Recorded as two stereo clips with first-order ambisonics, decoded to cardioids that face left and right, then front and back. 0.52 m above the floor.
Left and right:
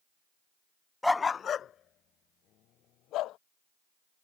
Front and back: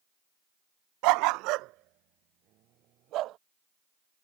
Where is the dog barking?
Straight behind; by 3.4 s 135° left.